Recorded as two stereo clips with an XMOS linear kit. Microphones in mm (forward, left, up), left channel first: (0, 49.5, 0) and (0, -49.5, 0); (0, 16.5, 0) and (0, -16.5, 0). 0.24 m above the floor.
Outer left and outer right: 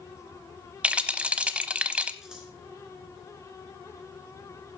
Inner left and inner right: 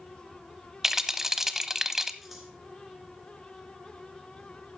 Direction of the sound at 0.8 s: 10° right (ahead or behind).